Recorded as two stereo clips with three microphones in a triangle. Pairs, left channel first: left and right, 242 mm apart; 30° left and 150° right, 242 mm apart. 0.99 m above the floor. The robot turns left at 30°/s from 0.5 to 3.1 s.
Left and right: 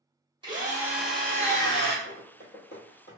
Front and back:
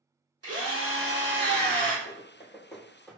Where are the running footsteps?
95° left, 1.4 m; by 3.2 s 110° left, 1.4 m.